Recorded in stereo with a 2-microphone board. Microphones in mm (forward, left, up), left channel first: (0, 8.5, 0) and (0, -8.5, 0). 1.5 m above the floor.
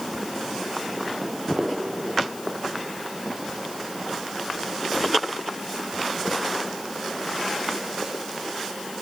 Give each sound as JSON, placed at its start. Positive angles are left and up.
{"t": 1.2, "sound": "footsteps", "side_deg": -40, "distance_m": 3.0}